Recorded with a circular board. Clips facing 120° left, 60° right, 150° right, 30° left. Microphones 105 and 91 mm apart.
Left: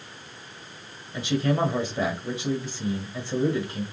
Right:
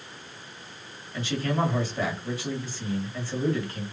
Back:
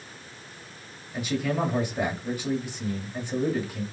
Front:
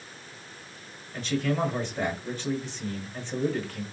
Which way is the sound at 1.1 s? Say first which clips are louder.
Left 3 dB, even; 150° left.